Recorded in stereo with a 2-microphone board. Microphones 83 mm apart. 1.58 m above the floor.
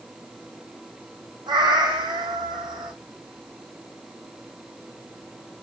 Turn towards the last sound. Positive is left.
turn(degrees=-60)  # may be behind; listen again after turning